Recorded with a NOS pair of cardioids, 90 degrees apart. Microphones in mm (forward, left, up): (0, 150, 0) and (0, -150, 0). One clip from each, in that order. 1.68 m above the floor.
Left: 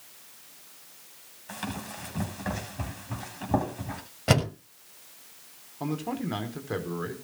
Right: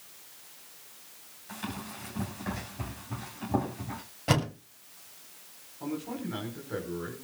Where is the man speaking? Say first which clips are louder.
Left 4 dB; 70° left, 5.5 m.